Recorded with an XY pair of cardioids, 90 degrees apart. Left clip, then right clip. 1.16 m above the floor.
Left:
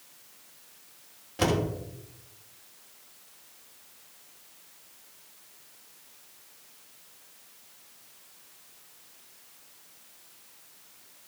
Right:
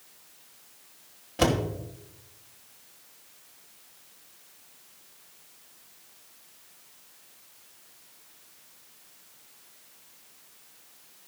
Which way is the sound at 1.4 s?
25° right.